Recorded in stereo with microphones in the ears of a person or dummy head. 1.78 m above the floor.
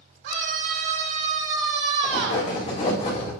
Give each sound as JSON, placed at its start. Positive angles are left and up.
{"t": 0.2, "sound": "a scream", "side_deg": -65, "distance_m": 2.5}
{"t": 2.0, "sound": "writing", "side_deg": 45, "distance_m": 4.0}